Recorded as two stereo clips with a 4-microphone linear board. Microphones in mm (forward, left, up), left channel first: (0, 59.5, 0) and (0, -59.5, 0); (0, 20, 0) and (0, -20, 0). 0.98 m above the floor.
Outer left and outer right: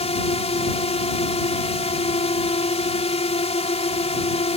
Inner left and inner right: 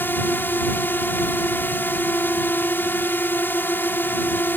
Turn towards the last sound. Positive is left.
turn(degrees=60)  # may be behind; listen again after turning